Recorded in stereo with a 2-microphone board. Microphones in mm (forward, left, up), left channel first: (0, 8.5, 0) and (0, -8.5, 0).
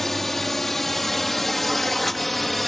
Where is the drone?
10° left (ahead or behind); by 2.7 s 5° left (ahead or behind).